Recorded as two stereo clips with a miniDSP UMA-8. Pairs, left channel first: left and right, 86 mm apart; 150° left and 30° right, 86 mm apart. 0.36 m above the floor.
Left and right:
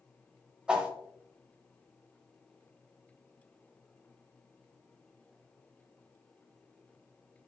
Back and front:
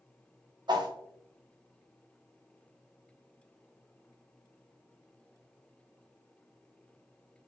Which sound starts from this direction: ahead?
A whoosh, at 0.7 s.